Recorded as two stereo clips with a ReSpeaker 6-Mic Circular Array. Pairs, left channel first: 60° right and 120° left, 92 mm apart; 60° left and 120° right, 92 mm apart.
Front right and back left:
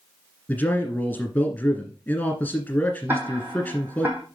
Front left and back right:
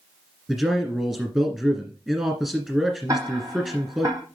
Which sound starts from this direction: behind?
Ticking, at 3.1 s.